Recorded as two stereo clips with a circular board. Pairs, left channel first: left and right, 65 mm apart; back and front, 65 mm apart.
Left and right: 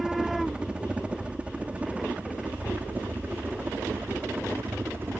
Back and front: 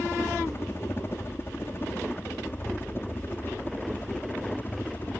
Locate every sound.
0.0 s a helicopter: 160° right; by 5.2 s 130° right